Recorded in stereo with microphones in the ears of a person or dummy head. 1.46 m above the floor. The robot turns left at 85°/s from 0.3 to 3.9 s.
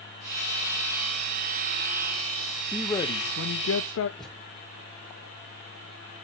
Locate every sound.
2.7 s a man speaking: straight behind, 0.6 m; by 4.1 s 80° left, 0.6 m
4.2 s a thud: centre (ahead or behind), 2 m